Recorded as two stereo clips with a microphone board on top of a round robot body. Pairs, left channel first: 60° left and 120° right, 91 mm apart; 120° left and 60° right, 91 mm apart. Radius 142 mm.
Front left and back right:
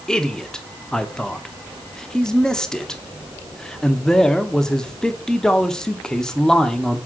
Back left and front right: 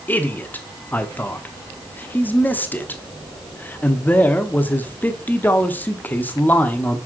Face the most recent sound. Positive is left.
turn(degrees=130)